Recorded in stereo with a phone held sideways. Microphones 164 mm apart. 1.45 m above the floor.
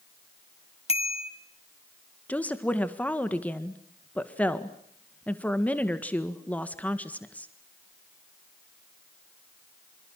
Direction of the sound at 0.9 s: 40° left (ahead or behind).